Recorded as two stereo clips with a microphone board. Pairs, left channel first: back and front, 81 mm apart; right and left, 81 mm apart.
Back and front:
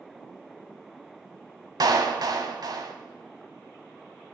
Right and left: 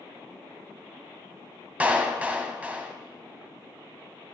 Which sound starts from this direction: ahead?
A clap, at 1.8 s.